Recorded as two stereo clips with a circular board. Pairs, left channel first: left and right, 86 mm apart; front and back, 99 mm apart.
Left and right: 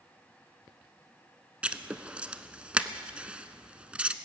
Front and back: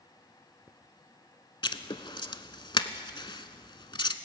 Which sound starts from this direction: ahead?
Writing, at 1.6 s.